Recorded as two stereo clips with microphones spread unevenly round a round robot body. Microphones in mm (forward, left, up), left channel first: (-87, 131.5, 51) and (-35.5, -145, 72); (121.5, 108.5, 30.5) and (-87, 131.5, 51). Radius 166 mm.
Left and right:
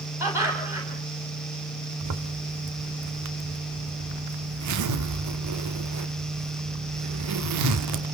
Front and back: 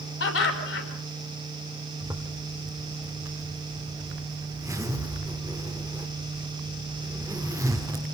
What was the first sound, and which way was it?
Laughter, 5° left.